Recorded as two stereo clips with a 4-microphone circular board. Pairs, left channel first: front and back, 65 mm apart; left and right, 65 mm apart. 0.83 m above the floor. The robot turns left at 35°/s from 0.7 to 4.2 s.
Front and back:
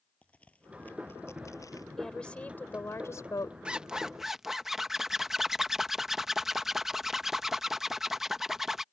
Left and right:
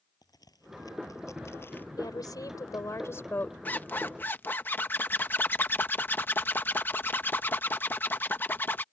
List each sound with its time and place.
0.2 s a crack: 70° left; by 1.9 s 30° left
2.0 s a woman speaking: 85° left; by 3.5 s 30° left
3.6 s a zipper: 120° left; by 8.8 s 100° left